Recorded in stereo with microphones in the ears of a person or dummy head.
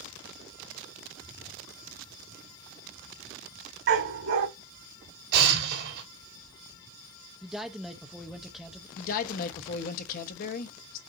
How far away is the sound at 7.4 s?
About 0.7 m.